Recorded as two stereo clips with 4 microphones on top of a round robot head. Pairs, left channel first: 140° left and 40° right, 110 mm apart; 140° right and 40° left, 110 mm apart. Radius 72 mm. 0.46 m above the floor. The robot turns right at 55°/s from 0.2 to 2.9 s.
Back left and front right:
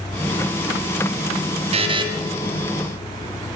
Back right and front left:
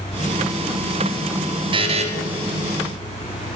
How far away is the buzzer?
About 1.7 m.